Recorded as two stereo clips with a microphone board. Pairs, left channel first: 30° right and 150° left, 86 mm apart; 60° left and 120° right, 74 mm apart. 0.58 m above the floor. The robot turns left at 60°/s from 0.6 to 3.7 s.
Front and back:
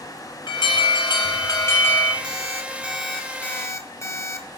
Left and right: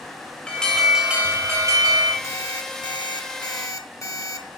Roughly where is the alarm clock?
Left.